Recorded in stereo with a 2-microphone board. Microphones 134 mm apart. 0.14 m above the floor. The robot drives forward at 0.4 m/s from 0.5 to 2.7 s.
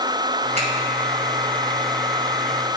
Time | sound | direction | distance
0.6 | a finger snap | 55° right (ahead or behind) | 3 m